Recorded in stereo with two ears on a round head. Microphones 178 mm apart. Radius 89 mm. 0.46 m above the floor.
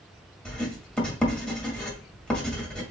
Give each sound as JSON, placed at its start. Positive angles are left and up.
{"t": 0.5, "sound": "writing", "side_deg": 5, "distance_m": 1.7}